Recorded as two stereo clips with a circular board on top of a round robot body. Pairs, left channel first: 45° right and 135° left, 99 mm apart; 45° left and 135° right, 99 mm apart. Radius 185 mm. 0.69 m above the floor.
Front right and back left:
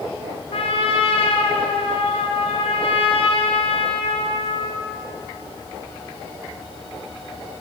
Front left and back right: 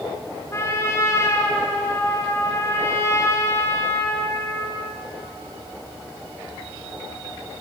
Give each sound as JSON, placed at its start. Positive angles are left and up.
{"t": 0.5, "sound": "a trumpet", "azimuth_deg": -20, "distance_m": 2.5}